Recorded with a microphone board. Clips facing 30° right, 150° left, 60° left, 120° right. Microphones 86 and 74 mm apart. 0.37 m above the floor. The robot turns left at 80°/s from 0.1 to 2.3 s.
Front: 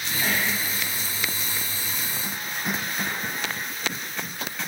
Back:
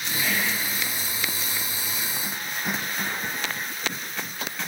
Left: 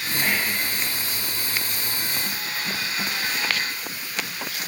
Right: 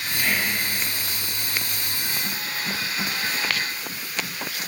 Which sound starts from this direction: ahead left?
Whispering, at 0.2 s.